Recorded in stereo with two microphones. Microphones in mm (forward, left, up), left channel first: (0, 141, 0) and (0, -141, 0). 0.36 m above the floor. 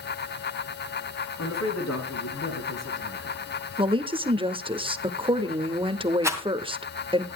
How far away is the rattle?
About 2 m.